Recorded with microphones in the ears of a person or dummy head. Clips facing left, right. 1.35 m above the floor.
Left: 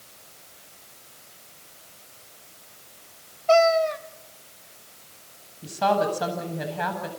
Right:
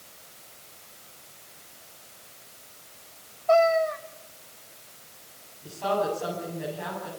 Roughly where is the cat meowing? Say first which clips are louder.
Left 2 dB; left.